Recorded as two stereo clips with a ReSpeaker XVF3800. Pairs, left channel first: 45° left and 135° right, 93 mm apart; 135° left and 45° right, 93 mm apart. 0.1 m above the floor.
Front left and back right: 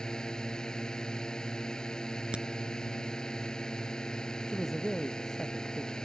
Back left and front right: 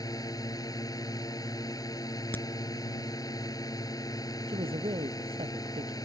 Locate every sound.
0.0 s a drone: 120° left
2.3 s a crack: 160° left
4.5 s a man speaking: 45° right